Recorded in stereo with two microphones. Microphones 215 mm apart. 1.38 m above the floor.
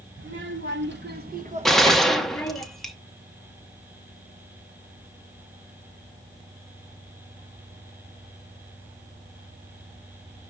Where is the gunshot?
Centre (ahead or behind), 0.8 m.